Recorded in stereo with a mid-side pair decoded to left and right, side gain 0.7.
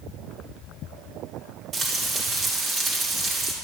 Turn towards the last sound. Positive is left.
turn(degrees=-30)